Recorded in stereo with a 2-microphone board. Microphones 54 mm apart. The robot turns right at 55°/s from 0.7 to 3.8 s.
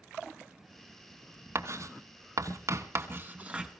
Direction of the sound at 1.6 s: 45° right (ahead or behind).